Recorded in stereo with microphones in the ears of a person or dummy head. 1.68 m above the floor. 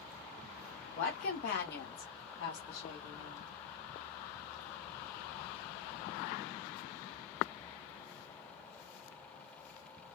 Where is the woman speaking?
35° left (ahead or behind), 1.0 m; by 3.5 s 75° left (ahead or behind), 2.0 m.